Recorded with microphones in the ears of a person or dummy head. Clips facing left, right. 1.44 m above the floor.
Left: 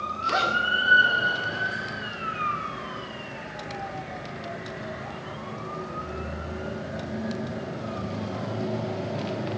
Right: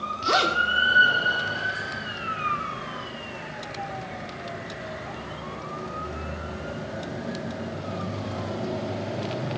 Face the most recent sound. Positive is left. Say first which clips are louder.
# right 3 dB
turn(degrees=-65)  # may be behind; listen again after turning